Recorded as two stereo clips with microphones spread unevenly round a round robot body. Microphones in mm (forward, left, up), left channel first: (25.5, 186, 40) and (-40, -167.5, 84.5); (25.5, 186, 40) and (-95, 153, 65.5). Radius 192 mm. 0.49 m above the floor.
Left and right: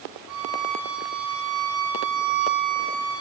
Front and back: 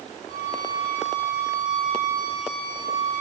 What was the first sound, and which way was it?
A violin, 135° right.